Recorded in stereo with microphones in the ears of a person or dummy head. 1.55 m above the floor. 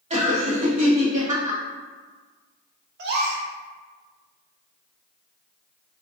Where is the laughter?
40° right (ahead or behind), 1.2 m.